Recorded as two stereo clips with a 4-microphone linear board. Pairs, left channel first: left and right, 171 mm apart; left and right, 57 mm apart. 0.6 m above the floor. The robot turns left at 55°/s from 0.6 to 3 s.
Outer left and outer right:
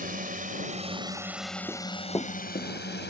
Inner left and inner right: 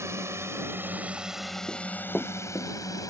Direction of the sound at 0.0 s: 50° right (ahead or behind).